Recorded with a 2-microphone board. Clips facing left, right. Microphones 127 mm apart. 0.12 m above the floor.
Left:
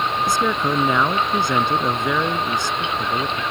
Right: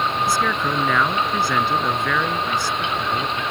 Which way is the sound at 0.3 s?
20° left (ahead or behind).